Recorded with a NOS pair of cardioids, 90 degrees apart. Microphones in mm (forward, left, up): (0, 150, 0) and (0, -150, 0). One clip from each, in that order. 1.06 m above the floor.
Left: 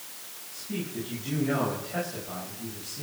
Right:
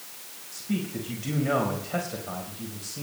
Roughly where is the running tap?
I don't hear a running tap.